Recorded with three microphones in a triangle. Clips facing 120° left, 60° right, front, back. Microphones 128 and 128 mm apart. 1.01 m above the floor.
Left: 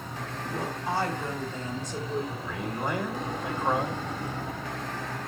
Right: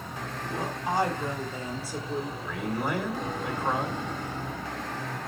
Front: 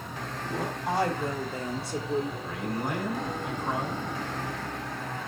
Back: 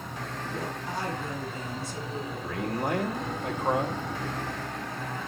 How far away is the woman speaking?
About 3 m.